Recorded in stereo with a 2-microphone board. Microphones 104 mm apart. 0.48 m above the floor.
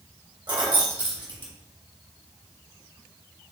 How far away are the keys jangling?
About 1.0 m.